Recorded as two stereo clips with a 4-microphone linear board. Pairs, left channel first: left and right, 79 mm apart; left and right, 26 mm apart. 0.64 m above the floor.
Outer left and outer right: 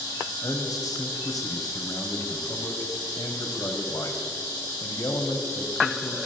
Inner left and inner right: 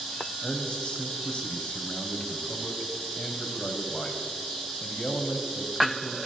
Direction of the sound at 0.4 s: 50° left (ahead or behind).